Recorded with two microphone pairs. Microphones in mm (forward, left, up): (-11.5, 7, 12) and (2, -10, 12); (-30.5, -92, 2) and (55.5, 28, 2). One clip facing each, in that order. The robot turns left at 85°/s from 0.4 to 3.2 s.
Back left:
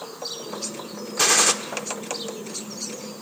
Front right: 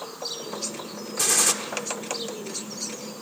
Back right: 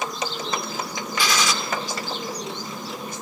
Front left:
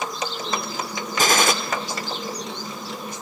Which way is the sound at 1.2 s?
85° left.